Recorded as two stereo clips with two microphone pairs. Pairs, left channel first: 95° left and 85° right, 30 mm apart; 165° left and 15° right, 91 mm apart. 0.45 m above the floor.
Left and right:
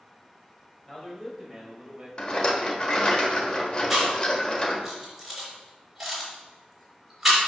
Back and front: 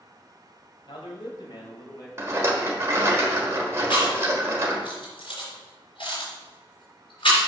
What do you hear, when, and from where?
0.9 s a man speaking: 165° left, 2 m; by 2.1 s 145° right, 2 m
2.2 s a rattle: 40° left, 1.2 m
3.9 s chewing: 170° right, 3 m